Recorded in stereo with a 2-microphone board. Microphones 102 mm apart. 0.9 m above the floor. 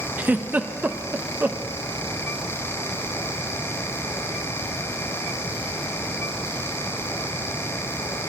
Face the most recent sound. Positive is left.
turn(degrees=-20)  # may be behind; listen again after turning